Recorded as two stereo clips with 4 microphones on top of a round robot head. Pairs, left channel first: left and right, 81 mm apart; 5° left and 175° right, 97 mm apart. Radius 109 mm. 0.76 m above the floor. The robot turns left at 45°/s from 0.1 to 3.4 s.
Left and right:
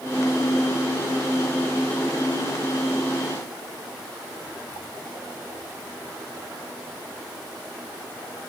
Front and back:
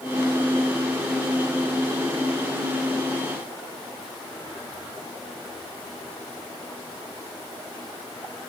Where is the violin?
I don't hear a violin.